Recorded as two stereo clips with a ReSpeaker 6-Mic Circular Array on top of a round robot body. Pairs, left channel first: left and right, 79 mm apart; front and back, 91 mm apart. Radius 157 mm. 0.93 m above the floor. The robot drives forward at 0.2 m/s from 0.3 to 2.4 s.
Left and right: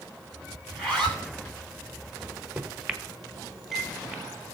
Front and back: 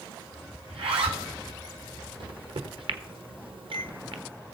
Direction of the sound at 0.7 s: 170° left.